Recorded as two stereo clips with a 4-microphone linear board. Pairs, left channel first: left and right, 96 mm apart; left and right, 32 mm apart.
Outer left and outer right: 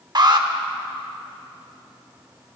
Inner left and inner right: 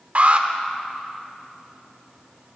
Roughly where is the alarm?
Right.